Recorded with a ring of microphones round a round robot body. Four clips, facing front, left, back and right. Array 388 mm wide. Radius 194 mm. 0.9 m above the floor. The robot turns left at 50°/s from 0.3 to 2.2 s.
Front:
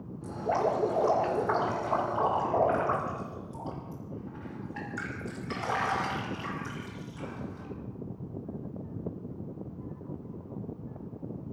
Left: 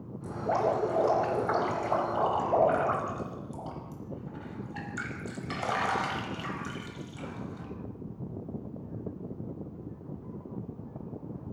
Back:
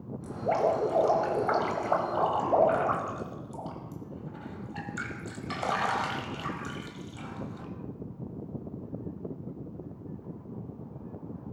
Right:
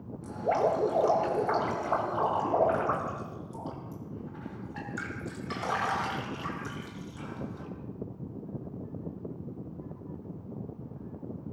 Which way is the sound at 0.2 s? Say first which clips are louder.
Right 1 dB, back 2 dB; 115° right.